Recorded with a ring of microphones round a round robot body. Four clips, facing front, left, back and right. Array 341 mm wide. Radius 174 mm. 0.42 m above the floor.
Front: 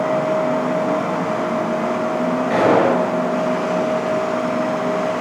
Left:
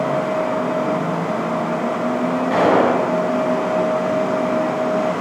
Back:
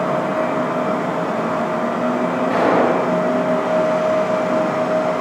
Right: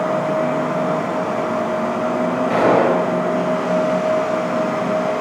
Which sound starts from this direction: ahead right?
A gunshot, at 2.5 s.